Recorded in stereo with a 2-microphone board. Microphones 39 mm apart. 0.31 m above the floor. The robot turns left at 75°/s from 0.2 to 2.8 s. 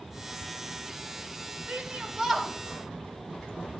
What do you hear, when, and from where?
1.7 s a shout: 40° right (ahead or behind), 1.3 m; by 3.8 s 15° left (ahead or behind), 1.3 m